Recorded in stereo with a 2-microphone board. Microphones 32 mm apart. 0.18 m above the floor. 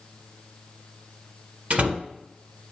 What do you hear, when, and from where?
1.7 s a door slam: 50° right (ahead or behind), 1.1 m